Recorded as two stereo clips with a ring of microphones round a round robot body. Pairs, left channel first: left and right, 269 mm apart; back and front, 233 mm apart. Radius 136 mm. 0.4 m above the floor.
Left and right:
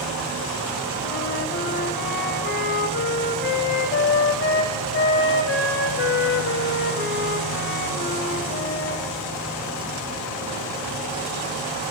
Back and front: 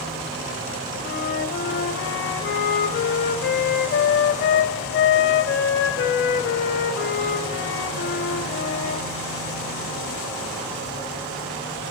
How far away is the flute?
About 0.9 m.